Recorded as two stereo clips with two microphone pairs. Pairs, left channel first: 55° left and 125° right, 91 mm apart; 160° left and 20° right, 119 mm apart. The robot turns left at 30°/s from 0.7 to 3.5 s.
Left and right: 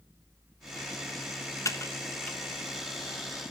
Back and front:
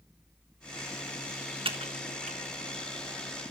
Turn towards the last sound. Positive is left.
turn(degrees=-45)